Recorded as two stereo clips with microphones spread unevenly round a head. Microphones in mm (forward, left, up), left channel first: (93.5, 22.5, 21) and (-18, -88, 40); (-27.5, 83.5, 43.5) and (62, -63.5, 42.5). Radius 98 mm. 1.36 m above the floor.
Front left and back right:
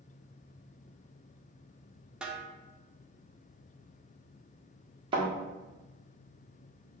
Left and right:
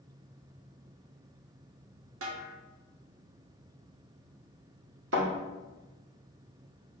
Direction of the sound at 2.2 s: 50° right.